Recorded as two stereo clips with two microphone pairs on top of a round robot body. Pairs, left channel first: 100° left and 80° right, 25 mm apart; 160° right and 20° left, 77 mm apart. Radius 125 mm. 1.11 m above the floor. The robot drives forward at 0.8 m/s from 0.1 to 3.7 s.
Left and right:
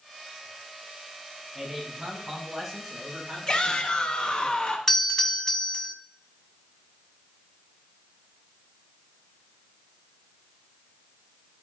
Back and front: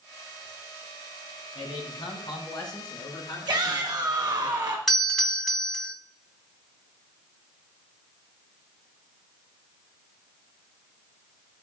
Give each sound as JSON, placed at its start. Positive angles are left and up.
{"t": 1.6, "sound": "a man speaking", "azimuth_deg": -165, "distance_m": 3.5}
{"t": 3.5, "sound": "a shout", "azimuth_deg": 50, "distance_m": 1.2}
{"t": 4.9, "sound": "a doorbell", "azimuth_deg": 110, "distance_m": 1.2}